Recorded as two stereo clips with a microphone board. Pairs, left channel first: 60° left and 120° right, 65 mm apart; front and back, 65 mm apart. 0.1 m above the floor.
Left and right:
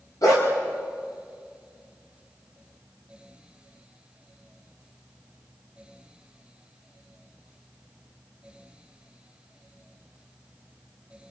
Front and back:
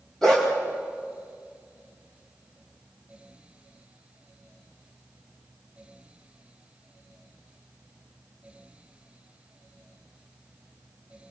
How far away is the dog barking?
About 7.5 m.